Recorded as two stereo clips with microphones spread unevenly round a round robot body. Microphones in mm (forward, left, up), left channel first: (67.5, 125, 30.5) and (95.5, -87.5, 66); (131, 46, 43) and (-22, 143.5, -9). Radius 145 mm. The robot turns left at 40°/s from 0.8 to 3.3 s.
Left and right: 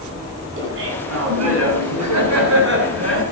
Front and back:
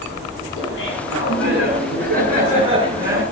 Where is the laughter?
60° right, 9.5 m; by 3.2 s 155° right, 9.5 m.